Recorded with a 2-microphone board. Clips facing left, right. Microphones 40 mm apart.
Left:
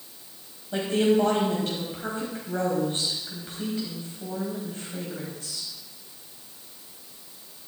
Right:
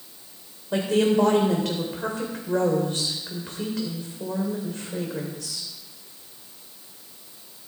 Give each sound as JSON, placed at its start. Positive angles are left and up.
{"t": 0.7, "sound": "a woman speaking", "side_deg": -85, "distance_m": 3.5}